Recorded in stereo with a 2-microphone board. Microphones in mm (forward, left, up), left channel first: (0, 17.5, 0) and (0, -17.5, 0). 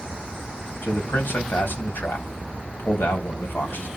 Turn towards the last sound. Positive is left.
turn(degrees=75)  # may be behind; listen again after turning